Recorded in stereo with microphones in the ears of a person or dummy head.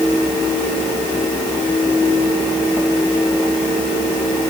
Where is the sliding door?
I don't hear a sliding door.